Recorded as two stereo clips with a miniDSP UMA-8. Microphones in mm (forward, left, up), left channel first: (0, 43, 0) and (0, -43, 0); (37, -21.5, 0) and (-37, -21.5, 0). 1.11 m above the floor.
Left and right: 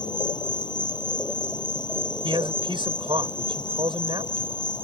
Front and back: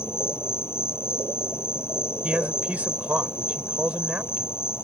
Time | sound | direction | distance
0.0 | an insect | 55° left | ?
2.2 | a man speaking | 110° right | ?